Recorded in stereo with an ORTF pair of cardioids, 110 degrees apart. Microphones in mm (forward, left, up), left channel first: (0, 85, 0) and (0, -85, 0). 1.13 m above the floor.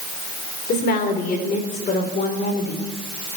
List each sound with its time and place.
0.7 s a woman speaking: 65° left, 3.5 m